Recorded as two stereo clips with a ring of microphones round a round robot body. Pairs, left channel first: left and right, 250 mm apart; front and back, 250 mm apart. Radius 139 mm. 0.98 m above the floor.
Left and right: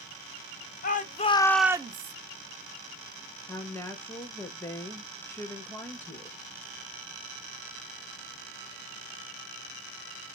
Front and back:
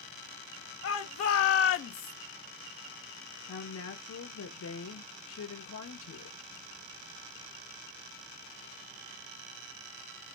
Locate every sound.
0.8 s a shout: 35° left, 1.2 m; by 2.1 s 60° right, 0.6 m
3.5 s a woman speaking: 10° left, 1.3 m